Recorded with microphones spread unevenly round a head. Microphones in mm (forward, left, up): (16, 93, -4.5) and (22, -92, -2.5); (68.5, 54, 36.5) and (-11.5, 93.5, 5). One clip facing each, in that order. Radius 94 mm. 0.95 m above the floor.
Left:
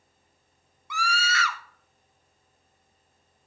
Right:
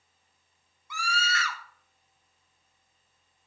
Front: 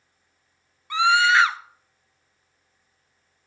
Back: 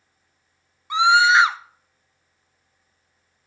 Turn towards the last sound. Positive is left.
turn(degrees=100)